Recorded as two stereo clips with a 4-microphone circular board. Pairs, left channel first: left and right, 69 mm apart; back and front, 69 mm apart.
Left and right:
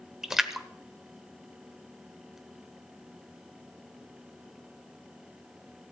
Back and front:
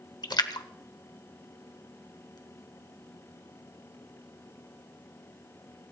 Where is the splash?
175° right, 1.0 m.